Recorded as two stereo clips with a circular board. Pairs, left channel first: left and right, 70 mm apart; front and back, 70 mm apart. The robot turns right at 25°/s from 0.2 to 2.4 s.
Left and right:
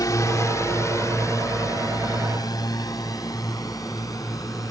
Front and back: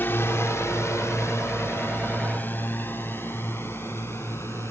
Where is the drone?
60° left; by 4.7 s 50° left.